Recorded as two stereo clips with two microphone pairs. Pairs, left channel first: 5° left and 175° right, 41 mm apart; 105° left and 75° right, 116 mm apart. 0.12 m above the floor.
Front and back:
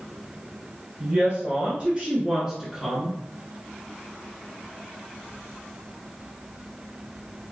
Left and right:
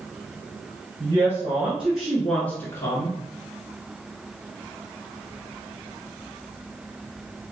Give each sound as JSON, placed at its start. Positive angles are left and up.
{"t": 1.0, "sound": "a woman speaking", "azimuth_deg": -135, "distance_m": 1.9}